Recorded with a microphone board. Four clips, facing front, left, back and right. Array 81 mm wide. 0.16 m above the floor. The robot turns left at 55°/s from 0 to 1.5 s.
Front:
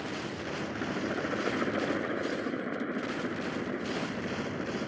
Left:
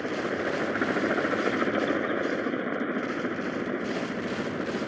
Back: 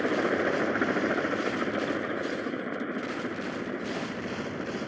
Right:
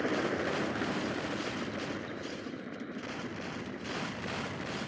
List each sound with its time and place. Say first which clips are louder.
0.0 s a helicopter: left 2 dB, back 11 dB; straight behind; by 4.9 s 100° left